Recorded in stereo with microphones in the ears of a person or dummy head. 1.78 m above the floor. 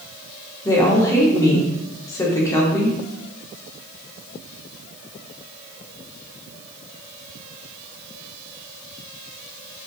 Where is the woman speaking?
20° left (ahead or behind), 0.7 m.